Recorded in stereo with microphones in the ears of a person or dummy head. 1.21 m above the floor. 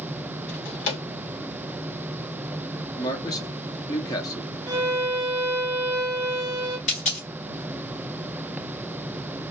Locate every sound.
0.5 s a drawer: 75° left (ahead or behind), 2 m
3.0 s a man speaking: 20° left (ahead or behind), 0.5 m
4.7 s a violin: 15° right (ahead or behind), 1.0 m
6.9 s a dropped coin: 40° left (ahead or behind), 1.4 m